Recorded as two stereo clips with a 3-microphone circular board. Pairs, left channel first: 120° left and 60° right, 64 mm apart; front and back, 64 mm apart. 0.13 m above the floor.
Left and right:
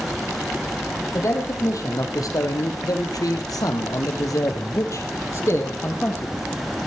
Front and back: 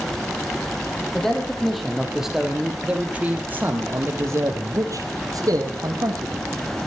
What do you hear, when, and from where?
1.1 s a man speaking: 85° left, 4 m; by 6.5 s 175° left, 4 m